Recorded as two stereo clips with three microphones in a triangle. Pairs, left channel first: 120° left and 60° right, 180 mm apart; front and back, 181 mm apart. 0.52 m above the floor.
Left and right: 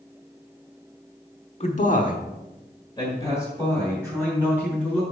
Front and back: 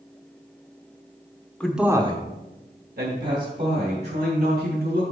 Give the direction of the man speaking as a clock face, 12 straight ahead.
9 o'clock.